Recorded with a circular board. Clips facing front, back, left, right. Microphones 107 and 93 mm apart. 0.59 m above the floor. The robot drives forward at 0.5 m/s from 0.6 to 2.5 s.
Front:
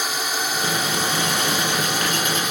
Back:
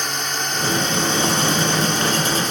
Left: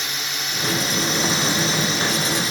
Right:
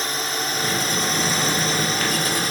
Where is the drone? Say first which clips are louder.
Even, right 4 dB; 80° right.